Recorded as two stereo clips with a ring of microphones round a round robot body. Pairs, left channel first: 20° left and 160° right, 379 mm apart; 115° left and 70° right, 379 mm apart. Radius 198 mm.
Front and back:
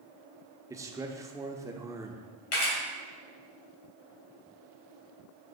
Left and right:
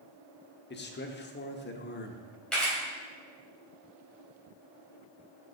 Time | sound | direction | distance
0.7 | a man speaking | 130° left | 0.9 m
2.5 | a camera shutter | 25° left | 3 m